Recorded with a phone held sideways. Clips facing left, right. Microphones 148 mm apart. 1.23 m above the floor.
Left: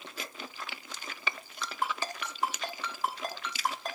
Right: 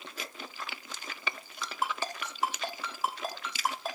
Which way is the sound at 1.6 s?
5° right (ahead or behind).